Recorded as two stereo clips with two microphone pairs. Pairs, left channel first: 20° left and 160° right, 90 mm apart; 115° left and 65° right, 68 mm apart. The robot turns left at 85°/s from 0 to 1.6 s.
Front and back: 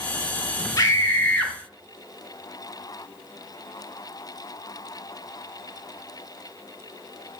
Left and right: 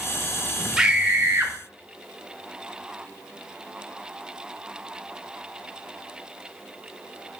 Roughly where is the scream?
Ahead.